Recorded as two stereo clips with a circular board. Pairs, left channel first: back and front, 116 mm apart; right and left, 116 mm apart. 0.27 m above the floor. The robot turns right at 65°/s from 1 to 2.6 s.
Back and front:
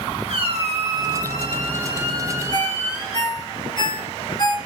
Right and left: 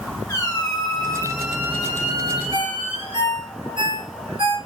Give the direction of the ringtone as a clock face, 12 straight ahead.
8 o'clock.